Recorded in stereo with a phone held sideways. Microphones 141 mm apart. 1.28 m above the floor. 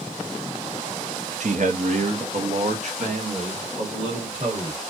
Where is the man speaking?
65° right (ahead or behind), 0.6 m; by 4.8 s 50° right (ahead or behind), 2.5 m.